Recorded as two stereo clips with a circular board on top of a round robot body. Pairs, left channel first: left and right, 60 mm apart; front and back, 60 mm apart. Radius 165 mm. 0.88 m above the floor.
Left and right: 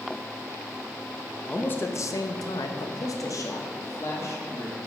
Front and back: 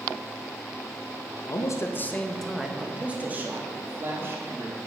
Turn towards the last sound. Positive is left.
turn(degrees=130)